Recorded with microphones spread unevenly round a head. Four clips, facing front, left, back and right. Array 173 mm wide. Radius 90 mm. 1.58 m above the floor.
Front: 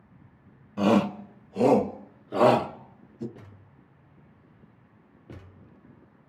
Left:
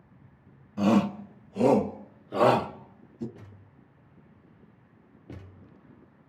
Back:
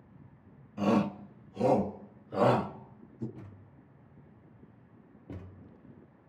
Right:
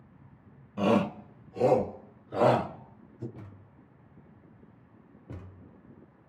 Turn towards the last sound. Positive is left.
turn(degrees=-5)